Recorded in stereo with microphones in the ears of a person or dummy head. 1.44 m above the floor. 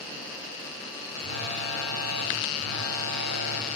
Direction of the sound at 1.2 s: 60° left (ahead or behind).